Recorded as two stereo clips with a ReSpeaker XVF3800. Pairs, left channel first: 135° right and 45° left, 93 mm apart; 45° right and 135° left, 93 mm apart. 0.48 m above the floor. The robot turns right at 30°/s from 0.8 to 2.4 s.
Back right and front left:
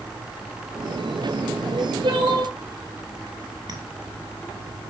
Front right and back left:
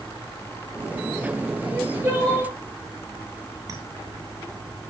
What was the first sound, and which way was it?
Crying, 55° left.